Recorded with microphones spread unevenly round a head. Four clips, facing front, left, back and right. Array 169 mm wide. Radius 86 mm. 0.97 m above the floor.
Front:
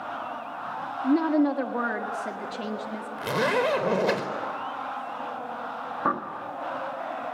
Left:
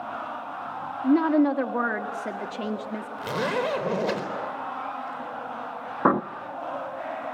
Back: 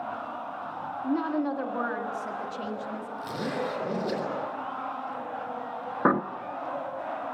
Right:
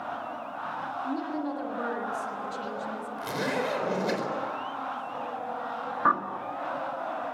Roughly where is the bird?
Behind left.